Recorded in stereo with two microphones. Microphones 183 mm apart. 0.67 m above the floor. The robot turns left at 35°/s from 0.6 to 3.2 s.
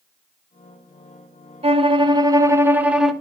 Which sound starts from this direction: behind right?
A violin, at 1.6 s.